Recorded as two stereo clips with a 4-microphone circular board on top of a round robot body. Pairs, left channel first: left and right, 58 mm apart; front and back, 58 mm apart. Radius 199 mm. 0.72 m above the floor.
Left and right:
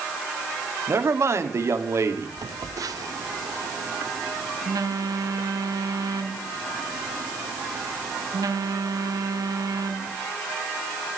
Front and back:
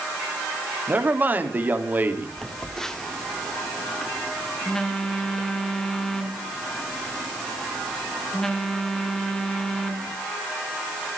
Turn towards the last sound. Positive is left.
turn(degrees=-80)